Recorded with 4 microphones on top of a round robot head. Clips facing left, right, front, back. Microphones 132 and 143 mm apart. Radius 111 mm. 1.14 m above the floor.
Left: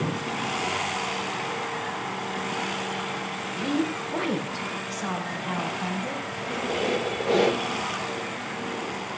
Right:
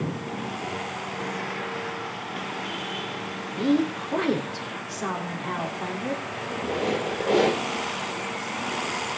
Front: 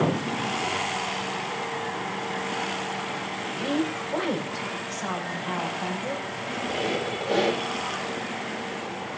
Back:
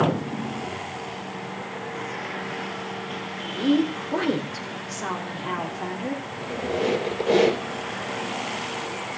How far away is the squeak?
About 3.5 m.